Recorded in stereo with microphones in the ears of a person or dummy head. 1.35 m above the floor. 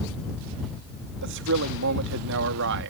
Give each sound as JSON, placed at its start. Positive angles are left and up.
{"t": 1.2, "sound": "a man speaking", "side_deg": -70}